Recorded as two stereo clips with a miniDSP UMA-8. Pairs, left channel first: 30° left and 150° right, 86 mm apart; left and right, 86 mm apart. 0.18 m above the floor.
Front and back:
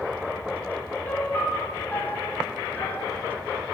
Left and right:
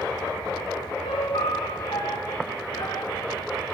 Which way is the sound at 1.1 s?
100° left.